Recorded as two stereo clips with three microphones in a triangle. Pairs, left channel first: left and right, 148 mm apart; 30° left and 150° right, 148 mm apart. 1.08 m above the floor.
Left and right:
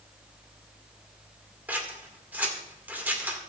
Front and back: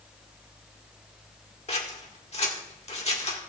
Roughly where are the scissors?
Ahead.